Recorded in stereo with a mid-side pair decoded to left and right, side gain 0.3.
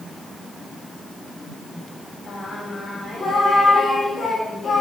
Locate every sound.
2.3 s singing: 45° left, 3 m